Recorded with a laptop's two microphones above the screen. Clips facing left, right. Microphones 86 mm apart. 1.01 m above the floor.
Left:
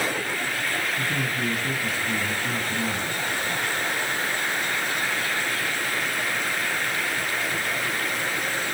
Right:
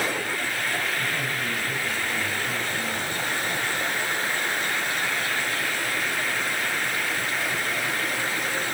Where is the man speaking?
85° left, 8.5 m.